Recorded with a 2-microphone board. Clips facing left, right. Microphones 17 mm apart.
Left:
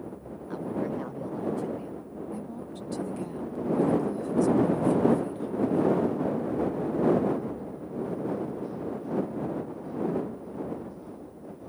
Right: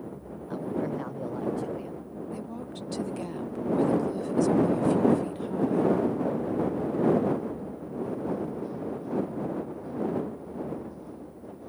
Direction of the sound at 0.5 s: 5° left (ahead or behind).